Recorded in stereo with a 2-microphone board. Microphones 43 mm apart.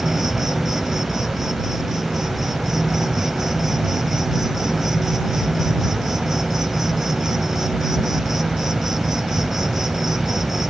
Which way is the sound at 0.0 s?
10° right (ahead or behind).